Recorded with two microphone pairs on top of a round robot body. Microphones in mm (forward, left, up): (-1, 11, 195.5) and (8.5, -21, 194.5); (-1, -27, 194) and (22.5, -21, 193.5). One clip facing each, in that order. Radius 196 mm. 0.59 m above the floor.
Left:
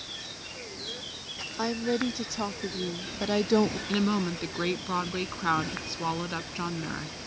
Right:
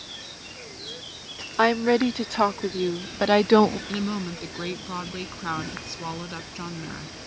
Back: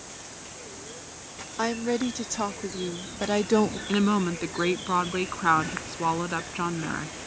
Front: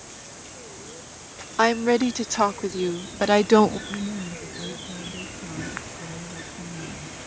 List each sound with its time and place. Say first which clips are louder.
1.6 s a woman speaking: right 9 dB, front 7 dB; 40° right
3.9 s a woman speaking: left 2 dB, back 7 dB; 175° right